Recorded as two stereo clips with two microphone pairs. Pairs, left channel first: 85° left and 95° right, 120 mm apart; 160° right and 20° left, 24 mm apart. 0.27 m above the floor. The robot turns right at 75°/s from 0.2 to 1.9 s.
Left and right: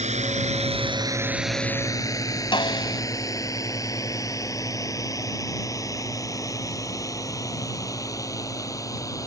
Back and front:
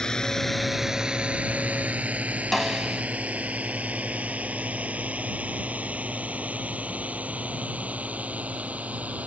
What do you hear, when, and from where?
0.0 s a drone: 100° right; by 9.3 s 25° left
2.5 s a snare drum: 120° left